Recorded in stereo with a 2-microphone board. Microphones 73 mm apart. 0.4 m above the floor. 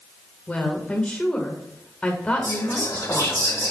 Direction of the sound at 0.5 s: 20° left (ahead or behind).